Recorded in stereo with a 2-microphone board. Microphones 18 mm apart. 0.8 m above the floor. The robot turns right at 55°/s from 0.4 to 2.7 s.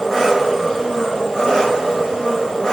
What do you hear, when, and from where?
0.0 s an engine running: 5° left, 2.5 m; by 2.7 s 135° left, 2.5 m